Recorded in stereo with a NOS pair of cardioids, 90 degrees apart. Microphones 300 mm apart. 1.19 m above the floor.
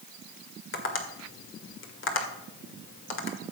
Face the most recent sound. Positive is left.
turn(degrees=45)